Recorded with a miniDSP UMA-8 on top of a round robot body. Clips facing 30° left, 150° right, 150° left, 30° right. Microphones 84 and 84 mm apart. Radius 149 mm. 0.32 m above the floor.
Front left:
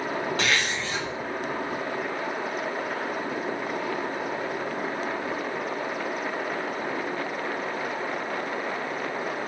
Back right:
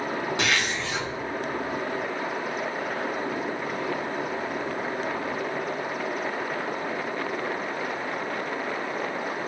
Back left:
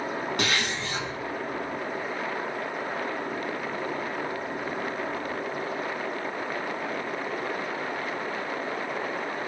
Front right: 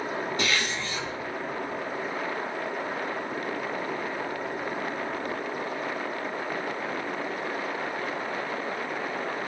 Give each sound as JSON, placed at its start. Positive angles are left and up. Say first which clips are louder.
{"t": 0.4, "sound": "a zipper", "louder": "even, even", "azimuth_deg": 135, "distance_m": 3.0}